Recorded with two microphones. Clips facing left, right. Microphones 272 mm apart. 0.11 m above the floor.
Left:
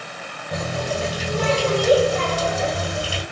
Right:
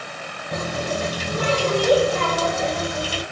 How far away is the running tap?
About 2 m.